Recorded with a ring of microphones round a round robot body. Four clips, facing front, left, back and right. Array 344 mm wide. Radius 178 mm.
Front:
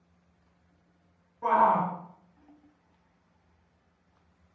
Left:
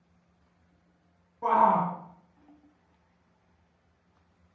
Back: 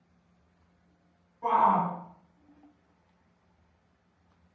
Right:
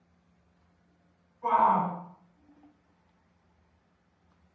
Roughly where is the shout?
Left.